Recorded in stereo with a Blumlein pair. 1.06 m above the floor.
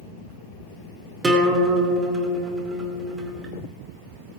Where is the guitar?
10° right, 2 m.